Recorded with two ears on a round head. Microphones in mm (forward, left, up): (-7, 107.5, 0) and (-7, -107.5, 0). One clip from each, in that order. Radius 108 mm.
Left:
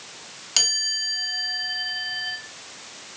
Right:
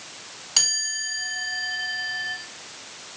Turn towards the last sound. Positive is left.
turn(degrees=20)  # may be behind; listen again after turning